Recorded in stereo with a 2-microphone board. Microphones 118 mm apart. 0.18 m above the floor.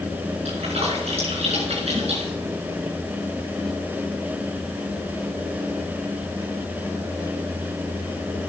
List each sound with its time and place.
0.5 s a splash: 60° right (ahead or behind), 5 m